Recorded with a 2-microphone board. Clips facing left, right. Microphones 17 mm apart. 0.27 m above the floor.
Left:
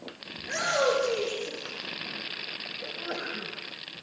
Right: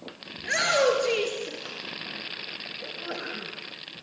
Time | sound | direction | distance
0.4 | a shout | 60° right (ahead or behind) | 4 m
2.8 | a sneeze | 5° left (ahead or behind) | 1.9 m